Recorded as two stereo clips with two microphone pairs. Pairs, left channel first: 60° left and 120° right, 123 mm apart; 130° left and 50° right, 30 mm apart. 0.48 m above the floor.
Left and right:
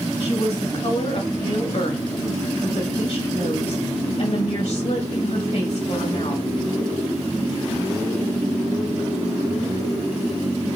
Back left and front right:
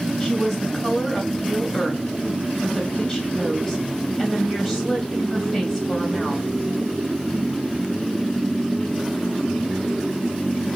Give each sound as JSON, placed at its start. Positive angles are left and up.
{"t": 0.2, "sound": "a woman speaking", "azimuth_deg": 40, "distance_m": 2.5}